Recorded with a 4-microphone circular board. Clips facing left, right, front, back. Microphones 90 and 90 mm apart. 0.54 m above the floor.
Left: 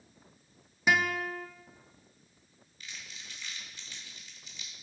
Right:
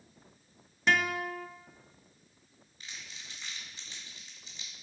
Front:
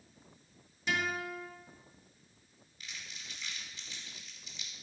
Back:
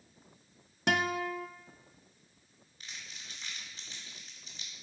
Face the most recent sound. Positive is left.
turn(degrees=-135)